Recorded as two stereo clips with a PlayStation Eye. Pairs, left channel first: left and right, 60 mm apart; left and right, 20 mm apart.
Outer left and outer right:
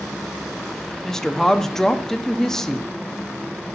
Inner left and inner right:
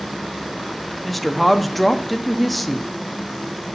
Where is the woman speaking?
10° left (ahead or behind), 0.6 m.